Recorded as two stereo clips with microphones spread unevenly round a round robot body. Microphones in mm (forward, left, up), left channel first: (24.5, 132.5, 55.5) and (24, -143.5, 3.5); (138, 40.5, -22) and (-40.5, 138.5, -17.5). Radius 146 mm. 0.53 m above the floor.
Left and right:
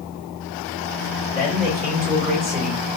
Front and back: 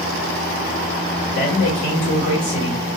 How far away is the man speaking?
About 2.0 m.